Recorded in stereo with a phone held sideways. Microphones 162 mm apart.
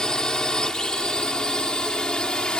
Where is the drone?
5° left (ahead or behind).